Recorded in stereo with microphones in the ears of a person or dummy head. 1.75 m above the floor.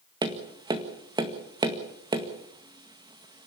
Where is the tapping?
20° right (ahead or behind), 2 m.